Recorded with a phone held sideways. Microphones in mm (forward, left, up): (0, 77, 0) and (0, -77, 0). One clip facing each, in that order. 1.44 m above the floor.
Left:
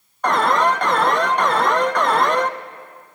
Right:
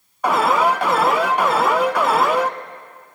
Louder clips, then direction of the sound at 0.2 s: Right 1 dB; 5° right (ahead or behind).